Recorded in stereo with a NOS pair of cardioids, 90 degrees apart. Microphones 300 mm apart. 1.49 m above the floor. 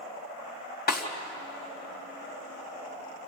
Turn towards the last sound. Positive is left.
turn(degrees=30)